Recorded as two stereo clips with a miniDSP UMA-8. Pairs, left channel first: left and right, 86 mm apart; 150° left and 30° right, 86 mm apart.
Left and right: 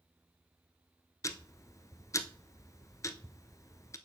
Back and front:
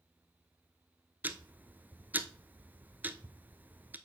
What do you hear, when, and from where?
1.2 s ticking: 40° left, 0.7 m